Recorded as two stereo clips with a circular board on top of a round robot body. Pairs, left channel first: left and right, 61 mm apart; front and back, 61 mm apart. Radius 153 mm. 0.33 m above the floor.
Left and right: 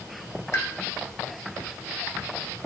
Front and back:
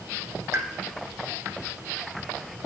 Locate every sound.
0.5 s a pop: 135° left, 1.5 m